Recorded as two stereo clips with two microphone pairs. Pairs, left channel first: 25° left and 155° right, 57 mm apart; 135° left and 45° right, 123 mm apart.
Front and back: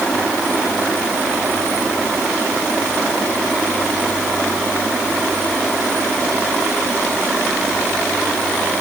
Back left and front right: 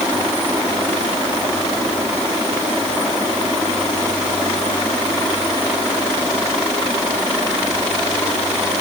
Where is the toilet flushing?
I don't hear a toilet flushing.